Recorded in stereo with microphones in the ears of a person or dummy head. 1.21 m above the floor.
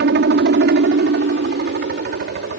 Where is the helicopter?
50° right (ahead or behind).